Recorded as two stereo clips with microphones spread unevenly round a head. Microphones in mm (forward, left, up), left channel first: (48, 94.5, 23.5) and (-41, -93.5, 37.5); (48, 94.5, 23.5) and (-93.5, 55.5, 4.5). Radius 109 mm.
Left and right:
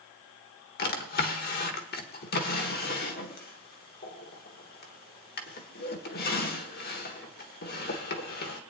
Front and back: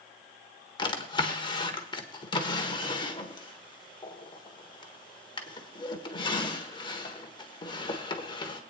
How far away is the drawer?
About 1.3 m.